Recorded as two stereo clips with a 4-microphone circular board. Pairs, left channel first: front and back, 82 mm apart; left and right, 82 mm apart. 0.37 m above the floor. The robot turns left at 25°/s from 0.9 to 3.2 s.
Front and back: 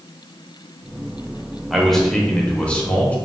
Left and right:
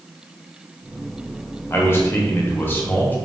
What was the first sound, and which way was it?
A man speaking, 85° left.